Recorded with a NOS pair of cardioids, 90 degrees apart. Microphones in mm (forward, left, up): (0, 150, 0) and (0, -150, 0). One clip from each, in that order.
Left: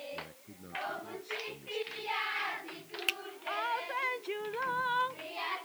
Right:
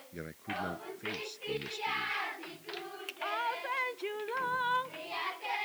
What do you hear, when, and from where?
0.1 s a man speaking: 65° right
3.1 s a finger snap: 65° left